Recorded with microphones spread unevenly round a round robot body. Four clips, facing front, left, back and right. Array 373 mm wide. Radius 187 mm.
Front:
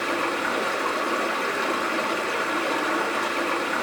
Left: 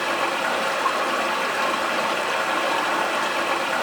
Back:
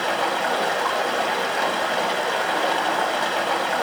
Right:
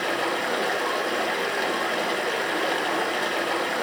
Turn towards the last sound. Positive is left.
turn(degrees=175)